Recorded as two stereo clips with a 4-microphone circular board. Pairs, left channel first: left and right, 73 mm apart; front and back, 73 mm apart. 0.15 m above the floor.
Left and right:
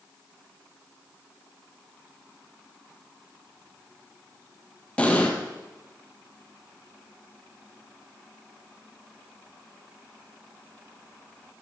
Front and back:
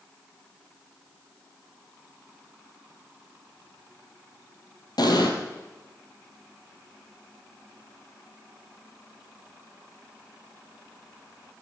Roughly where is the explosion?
Ahead.